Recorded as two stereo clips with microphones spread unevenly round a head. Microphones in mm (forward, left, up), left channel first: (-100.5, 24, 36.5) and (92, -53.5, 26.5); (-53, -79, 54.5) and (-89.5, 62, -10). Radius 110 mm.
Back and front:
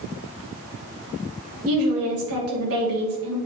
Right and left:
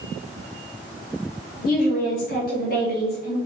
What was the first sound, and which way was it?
A woman speaking, 40° right.